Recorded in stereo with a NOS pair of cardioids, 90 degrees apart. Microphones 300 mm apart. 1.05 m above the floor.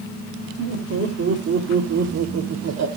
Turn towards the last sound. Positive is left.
turn(degrees=-65)